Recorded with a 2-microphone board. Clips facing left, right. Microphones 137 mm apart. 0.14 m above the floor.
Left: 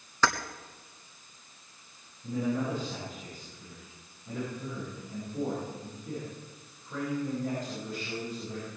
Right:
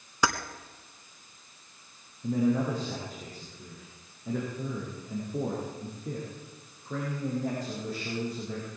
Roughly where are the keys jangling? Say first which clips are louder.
Even; centre.